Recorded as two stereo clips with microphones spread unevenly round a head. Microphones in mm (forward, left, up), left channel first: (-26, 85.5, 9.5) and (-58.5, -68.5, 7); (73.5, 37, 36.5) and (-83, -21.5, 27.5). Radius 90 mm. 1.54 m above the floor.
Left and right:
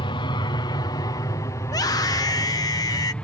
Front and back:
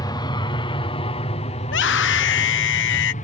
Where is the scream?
5° left.